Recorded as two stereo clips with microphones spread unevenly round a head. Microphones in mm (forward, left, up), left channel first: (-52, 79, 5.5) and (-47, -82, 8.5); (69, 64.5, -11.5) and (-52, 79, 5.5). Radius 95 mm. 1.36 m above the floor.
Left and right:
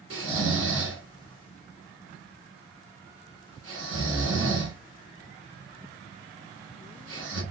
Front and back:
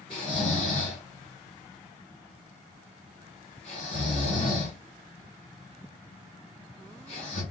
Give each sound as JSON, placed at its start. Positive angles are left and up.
{"t": 0.1, "sound": "snoring", "azimuth_deg": -75, "distance_m": 1.6}